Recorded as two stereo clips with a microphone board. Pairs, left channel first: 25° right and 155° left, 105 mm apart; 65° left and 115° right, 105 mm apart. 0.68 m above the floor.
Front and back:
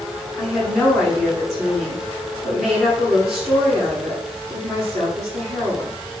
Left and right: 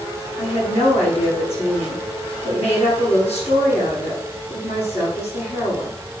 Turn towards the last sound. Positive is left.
turn(degrees=70)